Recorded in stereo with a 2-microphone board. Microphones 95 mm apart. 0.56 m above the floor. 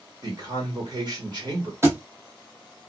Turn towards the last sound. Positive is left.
turn(degrees=-25)  # may be behind; listen again after turning